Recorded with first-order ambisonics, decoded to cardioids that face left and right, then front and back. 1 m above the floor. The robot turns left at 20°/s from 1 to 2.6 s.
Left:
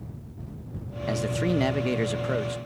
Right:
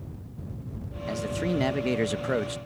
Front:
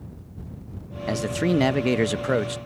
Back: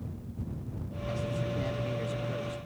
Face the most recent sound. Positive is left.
turn(degrees=-15)